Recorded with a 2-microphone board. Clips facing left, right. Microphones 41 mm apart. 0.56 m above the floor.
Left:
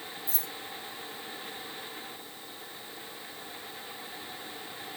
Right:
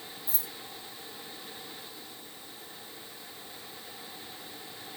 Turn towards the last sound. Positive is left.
turn(degrees=45)  # may be behind; listen again after turning